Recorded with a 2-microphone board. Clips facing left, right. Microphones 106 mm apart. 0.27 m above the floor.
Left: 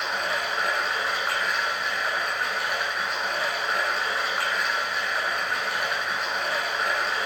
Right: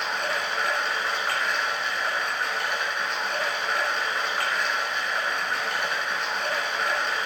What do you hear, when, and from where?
0.0 s running water: 5° left (ahead or behind), 2 m